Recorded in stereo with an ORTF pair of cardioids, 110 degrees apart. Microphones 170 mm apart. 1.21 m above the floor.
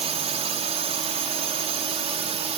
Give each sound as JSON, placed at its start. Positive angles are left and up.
{"t": 0.0, "sound": "a drone", "azimuth_deg": -40}